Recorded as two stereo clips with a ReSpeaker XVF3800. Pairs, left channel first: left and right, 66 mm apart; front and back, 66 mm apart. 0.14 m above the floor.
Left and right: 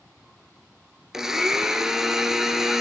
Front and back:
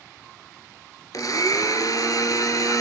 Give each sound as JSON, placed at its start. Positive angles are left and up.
{"t": 1.1, "sound": "a blender", "azimuth_deg": -5, "distance_m": 2.0}